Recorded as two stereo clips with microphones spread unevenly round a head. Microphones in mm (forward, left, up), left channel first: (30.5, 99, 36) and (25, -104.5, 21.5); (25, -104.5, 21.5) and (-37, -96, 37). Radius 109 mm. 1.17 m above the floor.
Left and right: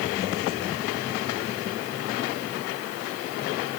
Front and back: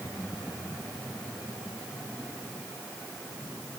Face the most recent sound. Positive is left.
No sound to turn to.